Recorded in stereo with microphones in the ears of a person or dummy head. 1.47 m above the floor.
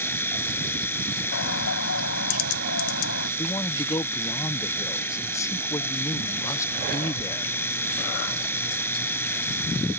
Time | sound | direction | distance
0.0 | a machine running | 15° left (ahead or behind) | ?
1.3 | a bird | 75° left (ahead or behind) | ?
3.4 | a man speaking | 15° left (ahead or behind) | ?